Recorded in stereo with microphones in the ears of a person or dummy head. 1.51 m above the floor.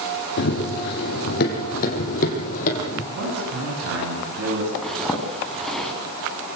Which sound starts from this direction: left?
Running footsteps, at 0.4 s.